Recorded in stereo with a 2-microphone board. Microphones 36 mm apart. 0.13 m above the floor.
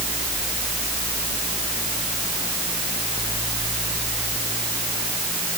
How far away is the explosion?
No explosion in this recording.